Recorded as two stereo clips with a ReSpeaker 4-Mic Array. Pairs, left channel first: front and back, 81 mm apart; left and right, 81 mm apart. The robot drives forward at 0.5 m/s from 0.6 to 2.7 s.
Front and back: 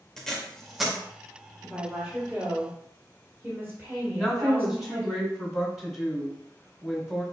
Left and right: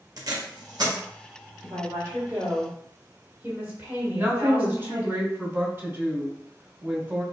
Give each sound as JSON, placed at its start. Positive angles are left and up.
{"t": 0.2, "sound": "tape being pulled", "azimuth_deg": -85, "distance_m": 0.7}
{"t": 1.6, "sound": "a woman speaking", "azimuth_deg": -110, "distance_m": 1.5}
{"t": 4.2, "sound": "a woman speaking", "azimuth_deg": -95, "distance_m": 1.2}